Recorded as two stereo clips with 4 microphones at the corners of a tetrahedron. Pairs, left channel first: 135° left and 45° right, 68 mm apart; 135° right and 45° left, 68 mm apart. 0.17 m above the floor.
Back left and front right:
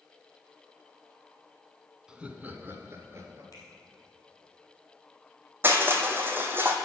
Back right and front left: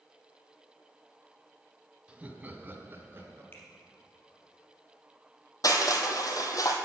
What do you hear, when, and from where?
2.1 s laughter: 10° left, 1.0 m; by 3.4 s 5° right, 2 m
3.5 s a finger snap: 170° left, 3.5 m
5.6 s crushing: 105° right, 1.3 m